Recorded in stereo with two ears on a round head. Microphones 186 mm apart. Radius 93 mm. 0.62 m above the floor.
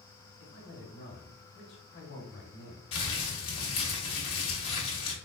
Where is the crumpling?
25° left (ahead or behind), 2.0 m.